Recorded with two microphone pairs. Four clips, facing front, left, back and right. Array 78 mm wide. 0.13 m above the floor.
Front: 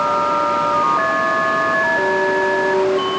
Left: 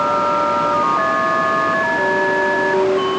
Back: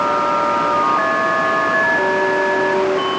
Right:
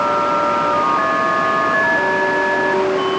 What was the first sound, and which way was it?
Only background noise.